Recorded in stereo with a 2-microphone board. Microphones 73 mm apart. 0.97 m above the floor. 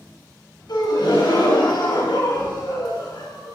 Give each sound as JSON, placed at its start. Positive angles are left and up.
{"t": 0.7, "sound": "a gasp", "side_deg": 75, "distance_m": 4.0}